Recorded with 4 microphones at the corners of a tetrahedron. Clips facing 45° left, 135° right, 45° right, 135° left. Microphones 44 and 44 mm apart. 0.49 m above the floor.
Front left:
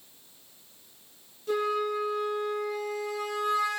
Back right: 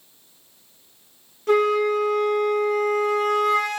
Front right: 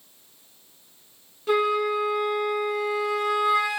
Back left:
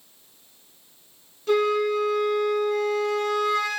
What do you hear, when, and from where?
1.5 s a flute: 120° right, 0.8 m